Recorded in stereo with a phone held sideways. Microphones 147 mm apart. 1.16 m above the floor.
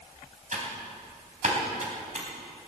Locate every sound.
0.5 s typing on a keyboard: 60° right (ahead or behind), 3.5 m